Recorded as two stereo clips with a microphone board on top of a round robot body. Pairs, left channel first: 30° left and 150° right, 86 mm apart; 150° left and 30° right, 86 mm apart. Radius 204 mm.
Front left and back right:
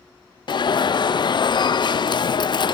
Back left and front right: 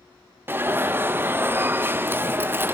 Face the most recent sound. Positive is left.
turn(degrees=30)